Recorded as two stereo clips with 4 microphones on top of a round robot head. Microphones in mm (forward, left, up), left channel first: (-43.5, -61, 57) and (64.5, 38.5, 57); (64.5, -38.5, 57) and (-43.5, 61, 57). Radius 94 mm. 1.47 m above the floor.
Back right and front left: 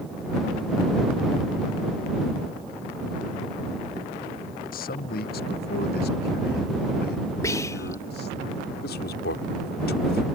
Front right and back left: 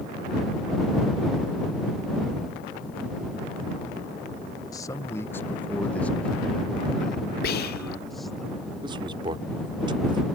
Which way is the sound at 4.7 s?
110° right.